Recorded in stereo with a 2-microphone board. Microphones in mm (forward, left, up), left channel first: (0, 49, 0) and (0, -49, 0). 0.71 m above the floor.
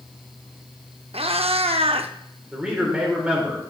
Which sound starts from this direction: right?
A cat meowing, at 1.1 s.